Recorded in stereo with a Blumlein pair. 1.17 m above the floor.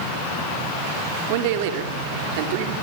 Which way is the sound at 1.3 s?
50° right.